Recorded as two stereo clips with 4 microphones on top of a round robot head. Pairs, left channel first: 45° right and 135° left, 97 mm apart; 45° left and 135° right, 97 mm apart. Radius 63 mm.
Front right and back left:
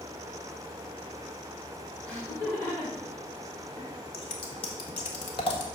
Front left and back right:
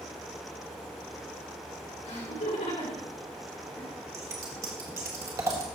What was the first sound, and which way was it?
Laughter, 35° left.